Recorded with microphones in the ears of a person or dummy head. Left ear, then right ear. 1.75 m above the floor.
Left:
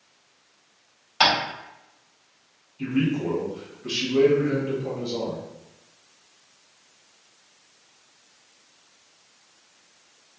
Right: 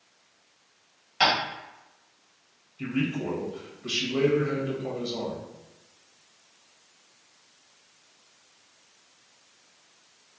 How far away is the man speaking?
About 1.8 m.